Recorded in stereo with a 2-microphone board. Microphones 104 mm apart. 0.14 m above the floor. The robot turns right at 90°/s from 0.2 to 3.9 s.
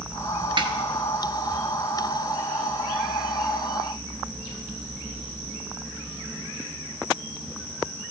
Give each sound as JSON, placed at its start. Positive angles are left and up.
{"t": 0.6, "sound": "a snare drum", "side_deg": -50, "distance_m": 0.9}